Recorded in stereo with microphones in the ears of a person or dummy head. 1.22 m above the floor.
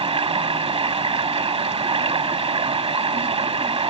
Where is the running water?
20° right (ahead or behind).